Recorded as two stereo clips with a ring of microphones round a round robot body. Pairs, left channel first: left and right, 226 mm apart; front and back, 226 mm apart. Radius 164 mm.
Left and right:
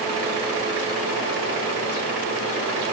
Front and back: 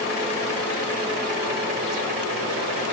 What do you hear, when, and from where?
Only background noise.